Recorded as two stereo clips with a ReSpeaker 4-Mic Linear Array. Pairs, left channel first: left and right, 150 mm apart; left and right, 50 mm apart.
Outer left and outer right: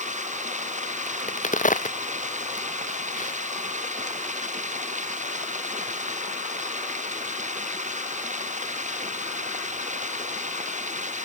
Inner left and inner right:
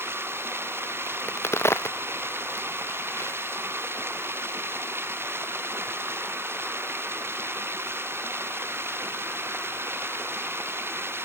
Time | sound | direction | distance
0.0 | running water | 55° right (ahead or behind) | ?
1.1 | a crack | 60° left (ahead or behind) | ?